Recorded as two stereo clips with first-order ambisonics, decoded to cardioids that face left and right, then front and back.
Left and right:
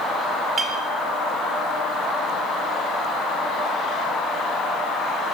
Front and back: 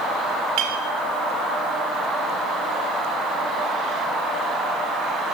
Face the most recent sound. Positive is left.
turn(degrees=-160)